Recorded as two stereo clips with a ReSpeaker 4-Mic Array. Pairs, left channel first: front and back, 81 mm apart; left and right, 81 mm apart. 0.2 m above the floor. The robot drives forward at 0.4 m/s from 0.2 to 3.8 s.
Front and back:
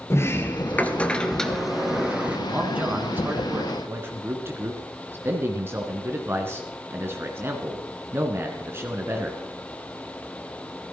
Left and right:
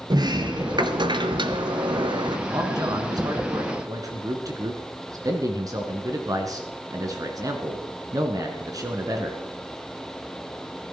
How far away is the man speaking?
About 2 m.